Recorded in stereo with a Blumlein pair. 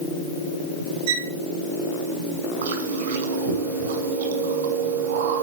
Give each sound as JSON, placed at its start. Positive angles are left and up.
{"t": 1.1, "sound": "a violin", "azimuth_deg": -65, "distance_m": 4.5}
{"t": 2.6, "sound": "chewing", "azimuth_deg": -60, "distance_m": 6.0}